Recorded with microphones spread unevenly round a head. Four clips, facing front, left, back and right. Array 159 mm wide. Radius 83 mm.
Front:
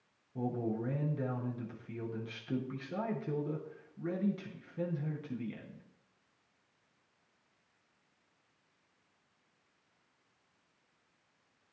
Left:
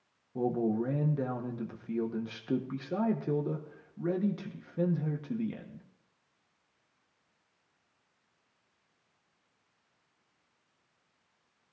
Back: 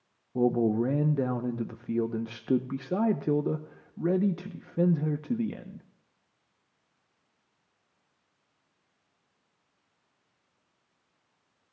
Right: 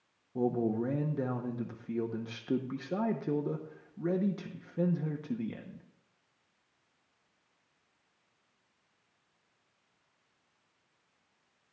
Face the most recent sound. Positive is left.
turn(degrees=-175)